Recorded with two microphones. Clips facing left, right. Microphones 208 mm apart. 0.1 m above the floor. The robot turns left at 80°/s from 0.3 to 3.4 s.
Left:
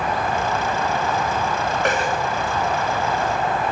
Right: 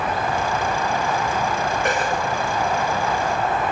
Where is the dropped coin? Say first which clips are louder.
Left 3 dB; 80° left, 1.7 m; by 2.1 s 60° left (ahead or behind), 1.7 m.